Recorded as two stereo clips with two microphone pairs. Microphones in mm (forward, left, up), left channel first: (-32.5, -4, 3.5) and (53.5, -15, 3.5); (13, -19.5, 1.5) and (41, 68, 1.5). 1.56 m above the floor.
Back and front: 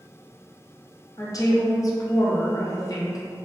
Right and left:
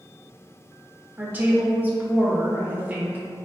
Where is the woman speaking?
135° left, 0.6 m.